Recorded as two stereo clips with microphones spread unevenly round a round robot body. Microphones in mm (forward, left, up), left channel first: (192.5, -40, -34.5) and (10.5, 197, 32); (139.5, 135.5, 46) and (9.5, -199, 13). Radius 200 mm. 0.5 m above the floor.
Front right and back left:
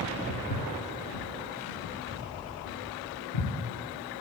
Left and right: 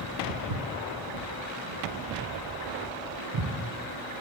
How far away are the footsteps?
About 1.4 m.